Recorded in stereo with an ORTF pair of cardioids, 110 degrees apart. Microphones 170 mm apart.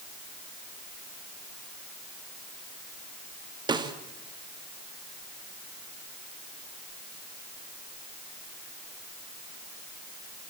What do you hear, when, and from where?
3.7 s a snare drum: 25° right, 2.5 m